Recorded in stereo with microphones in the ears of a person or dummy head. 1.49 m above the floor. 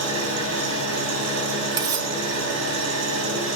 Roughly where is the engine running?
Right.